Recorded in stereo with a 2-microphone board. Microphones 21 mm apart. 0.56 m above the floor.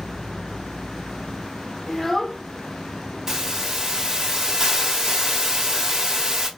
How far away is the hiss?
About 0.8 m.